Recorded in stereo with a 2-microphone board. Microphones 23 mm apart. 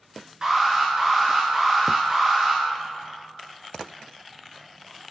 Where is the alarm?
25° right (ahead or behind), 4.5 m.